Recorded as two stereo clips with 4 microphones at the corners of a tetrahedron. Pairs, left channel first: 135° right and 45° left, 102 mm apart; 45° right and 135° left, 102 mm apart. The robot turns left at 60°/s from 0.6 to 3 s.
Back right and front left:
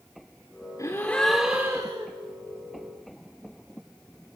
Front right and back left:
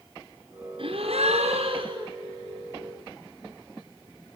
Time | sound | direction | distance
0.8 | a gasp | 165° left | 4.5 m